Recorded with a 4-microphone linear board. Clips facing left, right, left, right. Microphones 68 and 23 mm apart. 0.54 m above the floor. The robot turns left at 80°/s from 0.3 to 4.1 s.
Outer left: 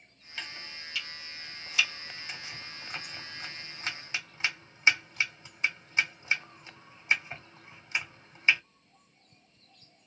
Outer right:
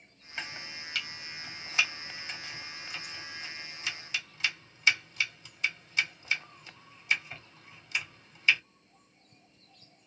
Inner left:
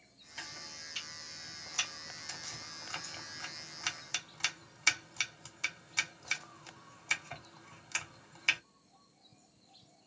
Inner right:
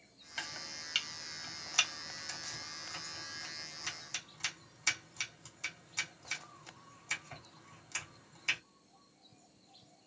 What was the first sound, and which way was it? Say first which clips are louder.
Chopping: outer right 2 dB, inner right 3 dB; 25° right (ahead or behind).